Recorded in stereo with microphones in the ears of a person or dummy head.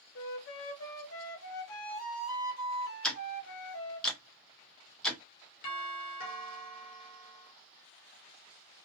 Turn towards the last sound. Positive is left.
turn(degrees=45)  # may be behind; listen again after turning